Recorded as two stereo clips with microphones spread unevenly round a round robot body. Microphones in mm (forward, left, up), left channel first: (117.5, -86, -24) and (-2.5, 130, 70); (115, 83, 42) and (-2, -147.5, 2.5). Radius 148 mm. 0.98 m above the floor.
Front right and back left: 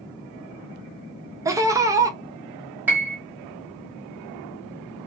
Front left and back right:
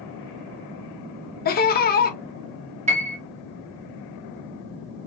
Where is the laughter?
20° left, 0.9 m.